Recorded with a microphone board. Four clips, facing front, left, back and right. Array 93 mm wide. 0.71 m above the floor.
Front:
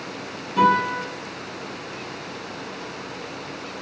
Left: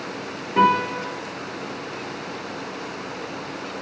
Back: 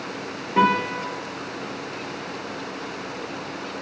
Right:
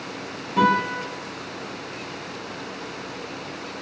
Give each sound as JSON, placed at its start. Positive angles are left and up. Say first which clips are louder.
{"t": 0.6, "sound": "a guitar", "louder": "left 2 dB, front 2 dB", "azimuth_deg": 140, "distance_m": 1.5}